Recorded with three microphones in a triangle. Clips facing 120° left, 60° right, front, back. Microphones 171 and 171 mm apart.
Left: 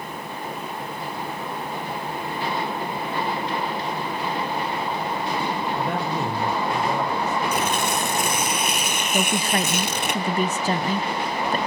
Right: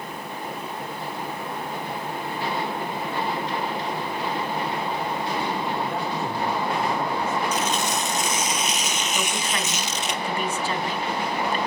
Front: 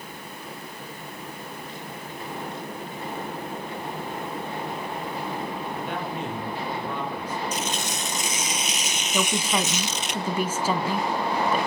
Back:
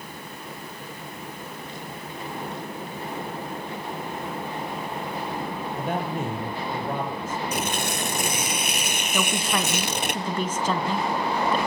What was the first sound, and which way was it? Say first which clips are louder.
A man speaking: left 2 dB, back 6 dB; 135° left.